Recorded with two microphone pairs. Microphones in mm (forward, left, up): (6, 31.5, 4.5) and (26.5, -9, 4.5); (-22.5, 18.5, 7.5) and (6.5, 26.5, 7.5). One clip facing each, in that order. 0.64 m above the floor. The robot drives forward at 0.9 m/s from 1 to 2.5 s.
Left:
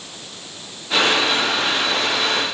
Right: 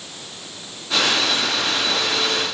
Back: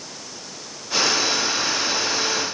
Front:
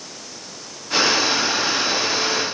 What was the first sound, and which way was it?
Only background noise.